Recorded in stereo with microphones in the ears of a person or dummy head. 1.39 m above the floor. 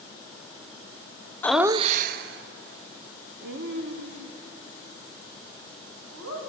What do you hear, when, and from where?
1.4 s laughter: 15° left (ahead or behind), 0.5 m; by 6.4 s 80° right, 5.5 m